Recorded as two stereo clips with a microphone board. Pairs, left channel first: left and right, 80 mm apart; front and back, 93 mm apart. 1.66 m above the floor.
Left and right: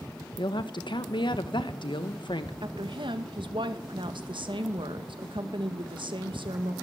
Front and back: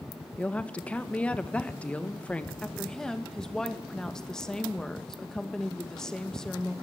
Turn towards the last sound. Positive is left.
turn(degrees=-85)